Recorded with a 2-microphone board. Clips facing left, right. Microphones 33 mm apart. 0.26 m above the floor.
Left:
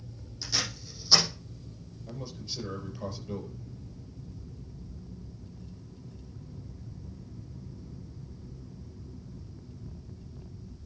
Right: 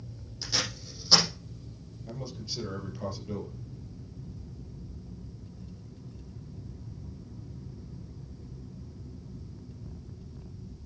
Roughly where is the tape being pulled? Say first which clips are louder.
Right 1 dB; centre.